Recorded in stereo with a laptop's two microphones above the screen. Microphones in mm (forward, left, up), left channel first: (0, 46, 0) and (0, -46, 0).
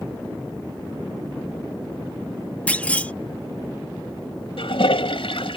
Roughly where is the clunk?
Centre.